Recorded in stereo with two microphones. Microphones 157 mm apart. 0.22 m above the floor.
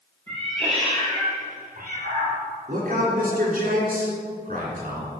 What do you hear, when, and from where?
0.3 s a cat meowing: 30° right (ahead or behind), 3 m; by 2.4 s 75° right (ahead or behind), 2.5 m
2.7 s a man speaking: 60° right (ahead or behind), 3 m